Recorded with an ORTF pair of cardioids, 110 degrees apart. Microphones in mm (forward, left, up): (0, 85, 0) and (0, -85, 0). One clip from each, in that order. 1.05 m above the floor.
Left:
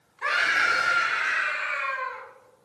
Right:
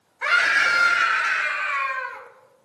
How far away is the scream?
About 2.5 m.